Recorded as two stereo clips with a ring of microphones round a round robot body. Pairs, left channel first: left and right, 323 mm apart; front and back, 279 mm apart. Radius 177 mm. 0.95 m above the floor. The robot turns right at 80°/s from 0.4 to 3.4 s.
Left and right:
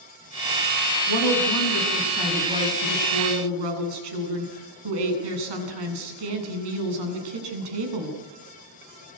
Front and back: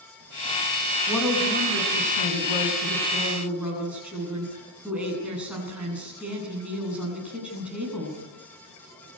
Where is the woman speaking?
80° left, 9 m; by 8.2 s 95° right, 9 m.